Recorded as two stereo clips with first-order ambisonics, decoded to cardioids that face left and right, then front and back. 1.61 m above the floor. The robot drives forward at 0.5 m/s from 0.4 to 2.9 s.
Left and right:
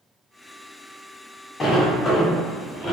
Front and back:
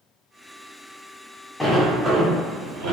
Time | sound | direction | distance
1.6 | a sliding door | 75° left | 0.6 m